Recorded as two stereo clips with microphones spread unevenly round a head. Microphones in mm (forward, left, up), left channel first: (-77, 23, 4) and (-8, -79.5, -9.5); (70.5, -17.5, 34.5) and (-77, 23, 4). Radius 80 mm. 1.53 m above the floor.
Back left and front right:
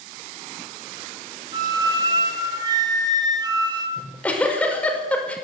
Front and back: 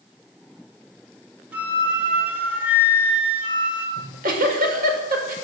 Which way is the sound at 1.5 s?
115° right.